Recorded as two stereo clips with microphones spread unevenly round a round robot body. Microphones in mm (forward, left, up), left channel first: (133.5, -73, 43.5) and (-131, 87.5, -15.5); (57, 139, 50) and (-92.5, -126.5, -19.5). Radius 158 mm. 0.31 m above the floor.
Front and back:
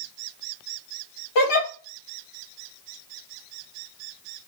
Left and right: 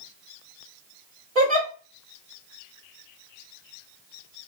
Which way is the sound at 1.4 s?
45° right.